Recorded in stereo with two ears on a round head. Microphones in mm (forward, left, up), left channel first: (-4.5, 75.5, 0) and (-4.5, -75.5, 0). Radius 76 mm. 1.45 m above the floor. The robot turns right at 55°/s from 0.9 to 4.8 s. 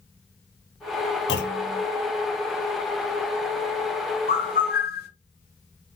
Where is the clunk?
75° left (ahead or behind), 0.9 m; by 1.8 s 55° left (ahead or behind), 0.9 m.